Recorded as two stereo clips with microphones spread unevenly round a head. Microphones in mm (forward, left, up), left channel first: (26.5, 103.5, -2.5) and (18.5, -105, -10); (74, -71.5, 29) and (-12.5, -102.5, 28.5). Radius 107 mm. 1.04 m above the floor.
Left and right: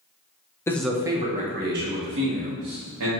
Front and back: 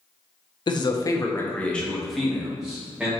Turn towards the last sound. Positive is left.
turn(degrees=-80)